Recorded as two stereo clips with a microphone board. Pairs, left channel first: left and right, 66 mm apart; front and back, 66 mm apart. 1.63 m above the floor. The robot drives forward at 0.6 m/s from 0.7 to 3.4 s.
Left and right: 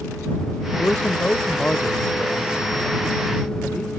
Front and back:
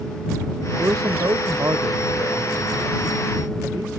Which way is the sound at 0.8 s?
145° left.